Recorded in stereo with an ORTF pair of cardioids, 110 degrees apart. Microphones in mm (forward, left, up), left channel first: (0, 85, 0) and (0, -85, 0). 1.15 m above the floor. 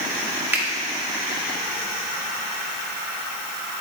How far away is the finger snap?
About 1.7 m.